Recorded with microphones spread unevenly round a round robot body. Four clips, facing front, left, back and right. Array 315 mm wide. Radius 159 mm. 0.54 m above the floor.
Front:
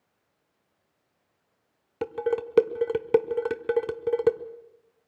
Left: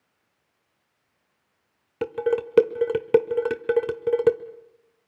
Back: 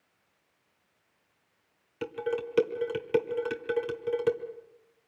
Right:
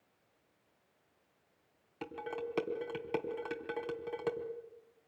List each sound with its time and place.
2.0 s dishes clattering: 70° left, 1.6 m